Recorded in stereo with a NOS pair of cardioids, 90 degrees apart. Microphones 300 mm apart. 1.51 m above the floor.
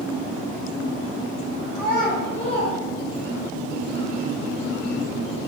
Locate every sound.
1.8 s a child speaking: 35° left, 1.7 m; by 3.5 s 5° right, 1.4 m